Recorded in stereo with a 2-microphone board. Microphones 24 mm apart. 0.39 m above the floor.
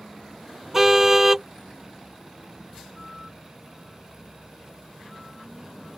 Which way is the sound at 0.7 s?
15° right (ahead or behind).